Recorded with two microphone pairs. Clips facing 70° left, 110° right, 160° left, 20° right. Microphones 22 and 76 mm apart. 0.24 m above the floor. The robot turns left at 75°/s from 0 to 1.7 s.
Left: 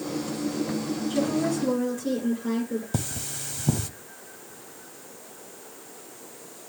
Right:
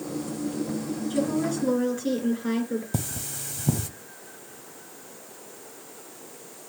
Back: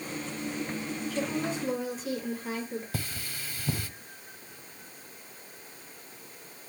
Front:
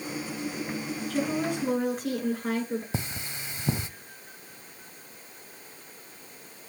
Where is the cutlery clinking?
15° left, 0.5 m.